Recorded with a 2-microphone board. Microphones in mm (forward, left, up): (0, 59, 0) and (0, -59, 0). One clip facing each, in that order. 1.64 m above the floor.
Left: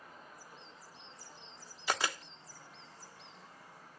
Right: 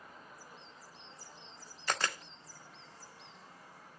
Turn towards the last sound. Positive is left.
turn(degrees=10)  # may be behind; listen again after turning